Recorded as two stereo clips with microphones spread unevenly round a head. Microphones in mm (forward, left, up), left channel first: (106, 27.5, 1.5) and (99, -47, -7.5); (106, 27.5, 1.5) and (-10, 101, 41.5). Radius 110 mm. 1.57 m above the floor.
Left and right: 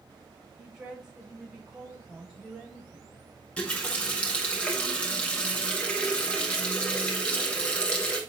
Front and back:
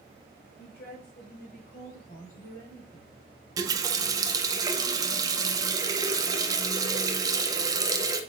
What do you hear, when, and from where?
0.6 s a woman speaking: 15° right, 4.5 m; by 3.2 s 10° right, 6 m
3.6 s a running tap: 145° left, 0.7 m